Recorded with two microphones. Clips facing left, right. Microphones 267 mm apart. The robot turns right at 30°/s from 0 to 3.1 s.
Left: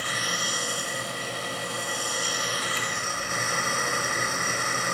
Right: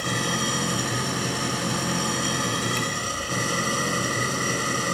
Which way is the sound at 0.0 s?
130° right.